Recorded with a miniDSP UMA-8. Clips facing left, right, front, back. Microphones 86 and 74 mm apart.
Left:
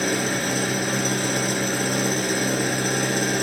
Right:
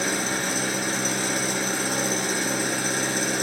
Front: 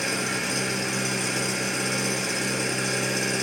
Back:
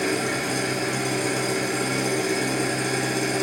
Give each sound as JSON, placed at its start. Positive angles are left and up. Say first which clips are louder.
{"t": 0.0, "sound": "an engine running", "louder": "left 3 dB, back 4 dB", "azimuth_deg": 130, "distance_m": 3.0}